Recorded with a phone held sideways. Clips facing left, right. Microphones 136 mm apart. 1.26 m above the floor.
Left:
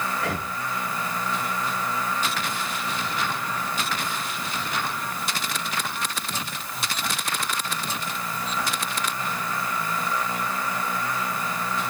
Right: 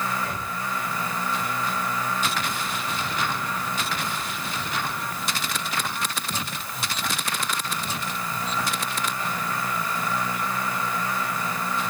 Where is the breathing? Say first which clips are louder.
Left 2 dB; 80° left, 1.8 m.